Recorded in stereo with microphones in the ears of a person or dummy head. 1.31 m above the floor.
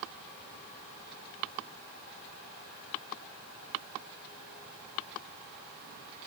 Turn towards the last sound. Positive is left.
No sound to turn to.